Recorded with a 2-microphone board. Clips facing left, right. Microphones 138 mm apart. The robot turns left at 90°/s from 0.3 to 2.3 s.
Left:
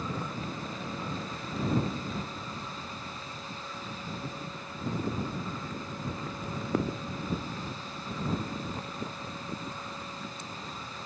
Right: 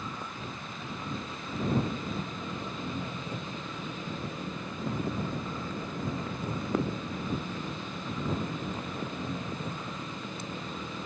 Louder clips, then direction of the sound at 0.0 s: Left 4 dB; 100° left.